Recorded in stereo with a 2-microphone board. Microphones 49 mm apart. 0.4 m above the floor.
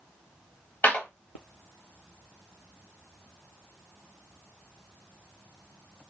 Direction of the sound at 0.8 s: 40° left (ahead or behind).